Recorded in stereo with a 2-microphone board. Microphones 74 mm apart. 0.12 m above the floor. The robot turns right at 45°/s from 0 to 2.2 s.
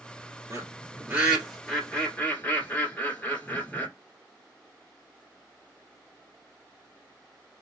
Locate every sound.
0.5 s a bird: 40° right (ahead or behind), 2 m; by 3.9 s 20° left (ahead or behind), 2 m